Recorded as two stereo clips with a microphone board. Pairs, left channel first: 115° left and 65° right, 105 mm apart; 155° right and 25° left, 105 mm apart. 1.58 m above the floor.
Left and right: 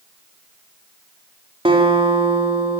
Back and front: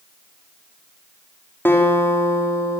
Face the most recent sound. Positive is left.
turn(degrees=-90)